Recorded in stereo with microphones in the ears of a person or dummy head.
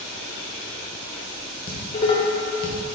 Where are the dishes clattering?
30° left (ahead or behind), 0.8 m.